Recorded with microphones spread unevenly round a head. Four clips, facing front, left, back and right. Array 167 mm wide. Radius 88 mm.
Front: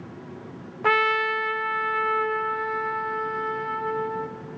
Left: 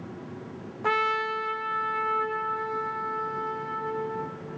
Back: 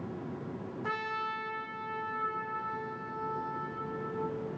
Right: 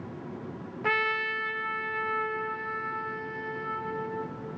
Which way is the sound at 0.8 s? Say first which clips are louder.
Left 4 dB, front 14 dB; 5° left.